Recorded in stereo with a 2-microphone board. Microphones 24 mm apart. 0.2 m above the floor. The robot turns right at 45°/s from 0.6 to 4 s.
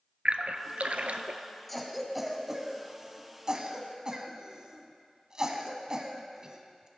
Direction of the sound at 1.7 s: 5° left (ahead or behind).